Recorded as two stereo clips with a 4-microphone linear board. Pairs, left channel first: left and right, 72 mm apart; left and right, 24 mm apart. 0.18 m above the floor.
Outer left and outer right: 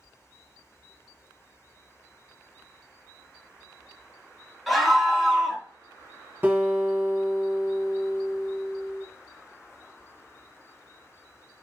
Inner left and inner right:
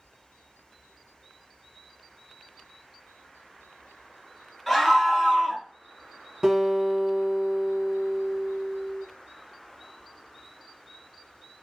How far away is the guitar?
About 1.5 m.